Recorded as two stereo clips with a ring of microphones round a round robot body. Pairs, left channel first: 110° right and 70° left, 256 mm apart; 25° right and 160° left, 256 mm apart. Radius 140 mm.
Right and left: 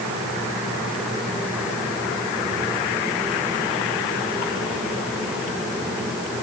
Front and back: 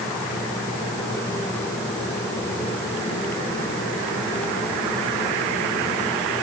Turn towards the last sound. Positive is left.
No sound to turn to.